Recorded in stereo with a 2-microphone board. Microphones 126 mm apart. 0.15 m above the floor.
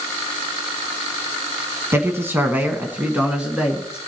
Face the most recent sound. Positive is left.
turn(degrees=-5)  # may be behind; listen again after turning